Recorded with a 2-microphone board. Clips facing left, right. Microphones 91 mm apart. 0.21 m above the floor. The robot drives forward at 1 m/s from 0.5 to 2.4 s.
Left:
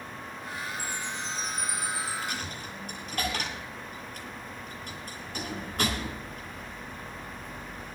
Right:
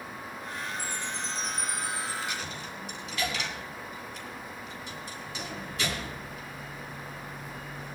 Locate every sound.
0.8 s a chime: 5° left (ahead or behind), 9 m
2.2 s a dropped coin: 50° left (ahead or behind), 6.5 m